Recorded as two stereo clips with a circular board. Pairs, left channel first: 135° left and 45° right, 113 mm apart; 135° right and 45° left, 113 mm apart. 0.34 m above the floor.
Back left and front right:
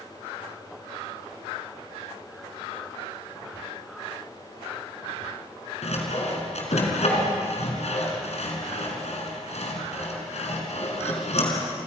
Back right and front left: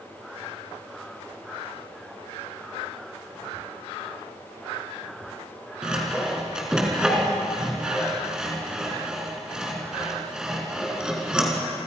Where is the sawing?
130° left, 4 m.